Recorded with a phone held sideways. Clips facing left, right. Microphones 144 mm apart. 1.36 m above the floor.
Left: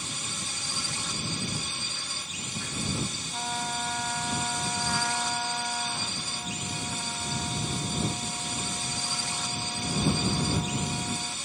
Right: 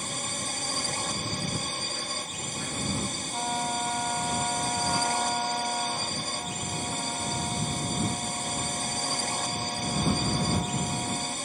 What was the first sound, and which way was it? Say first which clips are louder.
A drone: right 4 dB; 50° right (ahead or behind).